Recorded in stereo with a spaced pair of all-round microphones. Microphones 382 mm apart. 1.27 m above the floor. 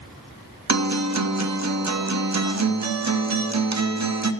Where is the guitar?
45° right (ahead or behind), 0.7 m.